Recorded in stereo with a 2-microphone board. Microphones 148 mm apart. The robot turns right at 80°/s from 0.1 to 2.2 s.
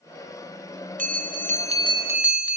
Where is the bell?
110° right, 0.5 m; by 2.6 s 10° right, 0.5 m.